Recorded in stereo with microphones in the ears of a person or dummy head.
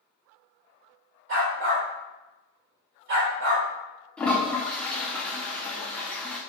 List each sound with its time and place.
1.3 s a dog barking: 50° right (ahead or behind), 1.9 m
4.2 s a toilet flushing: centre (ahead or behind), 0.6 m